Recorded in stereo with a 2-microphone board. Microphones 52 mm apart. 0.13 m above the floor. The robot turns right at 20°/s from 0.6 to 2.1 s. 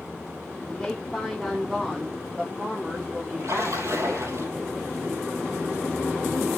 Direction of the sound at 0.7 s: 15° left (ahead or behind).